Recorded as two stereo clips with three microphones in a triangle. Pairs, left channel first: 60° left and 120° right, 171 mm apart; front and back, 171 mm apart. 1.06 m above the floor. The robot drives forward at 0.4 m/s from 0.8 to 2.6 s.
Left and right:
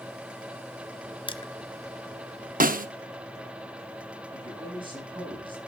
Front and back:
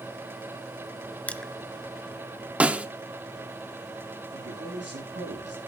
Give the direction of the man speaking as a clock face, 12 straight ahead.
6 o'clock.